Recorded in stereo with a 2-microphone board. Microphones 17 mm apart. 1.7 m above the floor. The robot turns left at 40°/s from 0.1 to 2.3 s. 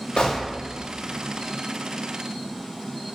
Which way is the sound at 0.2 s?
65° left (ahead or behind).